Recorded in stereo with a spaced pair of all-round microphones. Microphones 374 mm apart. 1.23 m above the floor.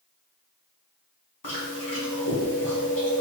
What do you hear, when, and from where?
1.4 s chewing: 75° left (ahead or behind), 1.8 m